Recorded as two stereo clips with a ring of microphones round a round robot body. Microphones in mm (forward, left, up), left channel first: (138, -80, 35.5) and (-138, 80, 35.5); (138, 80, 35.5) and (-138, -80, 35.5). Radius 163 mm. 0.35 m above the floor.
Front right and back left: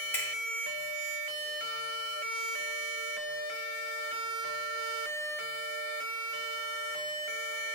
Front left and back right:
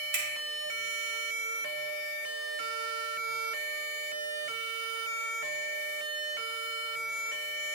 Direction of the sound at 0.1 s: 115° right.